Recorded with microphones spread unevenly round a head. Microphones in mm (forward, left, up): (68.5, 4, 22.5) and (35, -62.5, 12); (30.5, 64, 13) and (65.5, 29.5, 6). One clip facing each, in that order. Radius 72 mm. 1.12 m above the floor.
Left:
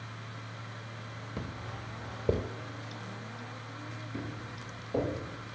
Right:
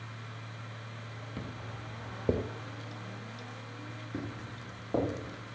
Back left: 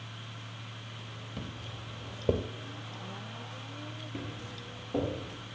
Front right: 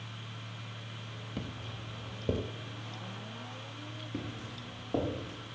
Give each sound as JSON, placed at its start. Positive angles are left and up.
{"t": 1.4, "sound": "footsteps", "azimuth_deg": 15, "distance_m": 1.4}
{"t": 4.1, "sound": "footsteps", "azimuth_deg": -65, "distance_m": 8.5}